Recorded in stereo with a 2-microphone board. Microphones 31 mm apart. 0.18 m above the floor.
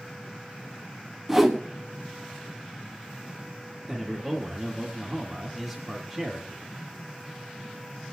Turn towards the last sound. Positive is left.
turn(degrees=5)  # may be behind; listen again after turning